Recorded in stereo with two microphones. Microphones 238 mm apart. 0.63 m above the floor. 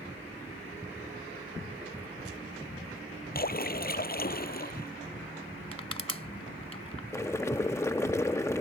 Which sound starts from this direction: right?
Crushing, at 5.7 s.